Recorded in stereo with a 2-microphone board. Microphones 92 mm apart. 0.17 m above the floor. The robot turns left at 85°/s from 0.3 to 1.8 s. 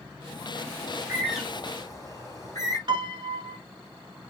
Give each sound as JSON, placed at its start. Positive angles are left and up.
{"t": 0.9, "sound": "a bird", "side_deg": -40, "distance_m": 2.5}
{"t": 2.9, "sound": "a piano", "side_deg": -55, "distance_m": 1.0}